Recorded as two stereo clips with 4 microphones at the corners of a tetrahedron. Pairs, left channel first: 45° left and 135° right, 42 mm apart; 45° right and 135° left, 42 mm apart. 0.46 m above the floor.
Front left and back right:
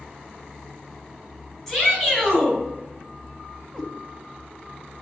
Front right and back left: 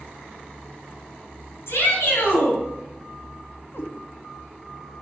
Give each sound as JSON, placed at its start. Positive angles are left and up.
{"t": 1.7, "sound": "a shout", "azimuth_deg": -50, "distance_m": 5.5}
{"t": 3.7, "sound": "a cat meowing", "azimuth_deg": -40, "distance_m": 1.3}